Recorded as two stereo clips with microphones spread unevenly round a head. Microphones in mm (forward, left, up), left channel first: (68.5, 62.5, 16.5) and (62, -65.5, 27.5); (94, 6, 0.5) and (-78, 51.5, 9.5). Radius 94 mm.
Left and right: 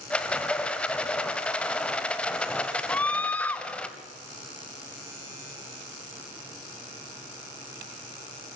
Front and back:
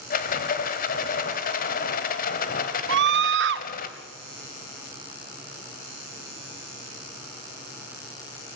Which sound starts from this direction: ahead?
A rattle, at 0.1 s.